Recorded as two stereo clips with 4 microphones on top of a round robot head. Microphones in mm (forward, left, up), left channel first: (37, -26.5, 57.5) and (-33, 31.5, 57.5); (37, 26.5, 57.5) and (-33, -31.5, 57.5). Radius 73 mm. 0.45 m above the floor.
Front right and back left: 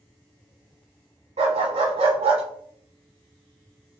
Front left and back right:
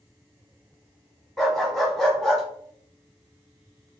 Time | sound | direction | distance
1.4 | a dog barking | 125° left | 1.1 m